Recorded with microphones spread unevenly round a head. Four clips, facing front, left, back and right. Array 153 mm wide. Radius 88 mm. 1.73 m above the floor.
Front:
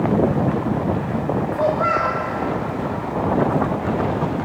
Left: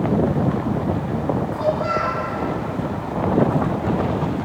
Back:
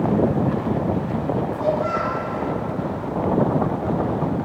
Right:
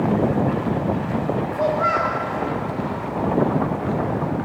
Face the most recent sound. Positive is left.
turn(degrees=-40)